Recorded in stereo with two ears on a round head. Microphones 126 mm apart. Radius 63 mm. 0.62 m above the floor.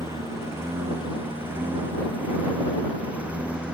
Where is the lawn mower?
20° right (ahead or behind); by 3.7 s 5° right (ahead or behind).